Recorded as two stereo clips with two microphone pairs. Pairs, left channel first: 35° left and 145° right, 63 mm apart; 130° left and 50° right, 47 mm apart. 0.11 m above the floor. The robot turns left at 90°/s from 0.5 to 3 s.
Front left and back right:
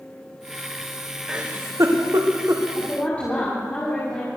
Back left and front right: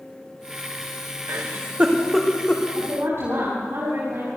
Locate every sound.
1.3 s a giggle: 65° right, 2.5 m; by 2.6 s 170° left, 2.5 m
2.8 s a woman speaking: 10° right, 7.5 m; by 4.3 s 30° right, 7.5 m